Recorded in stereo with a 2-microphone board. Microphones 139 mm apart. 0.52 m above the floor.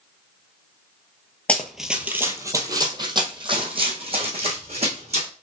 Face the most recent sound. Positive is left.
turn(degrees=-50)  # may be behind; listen again after turning